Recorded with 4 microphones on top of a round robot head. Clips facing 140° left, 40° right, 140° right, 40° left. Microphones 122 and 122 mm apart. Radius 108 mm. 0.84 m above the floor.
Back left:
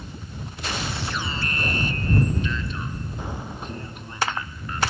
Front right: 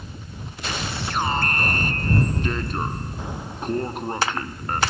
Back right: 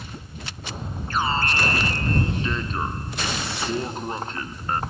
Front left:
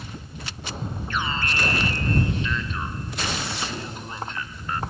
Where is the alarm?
85° right.